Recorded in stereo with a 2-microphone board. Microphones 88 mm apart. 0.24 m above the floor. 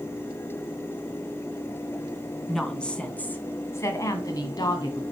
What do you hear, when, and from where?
2.5 s a woman speaking: 5° left (ahead or behind), 2 m; by 5.0 s 55° left (ahead or behind), 1.8 m